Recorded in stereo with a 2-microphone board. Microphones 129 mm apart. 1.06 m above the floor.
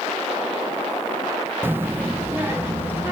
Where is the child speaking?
15° right (ahead or behind), 0.8 m.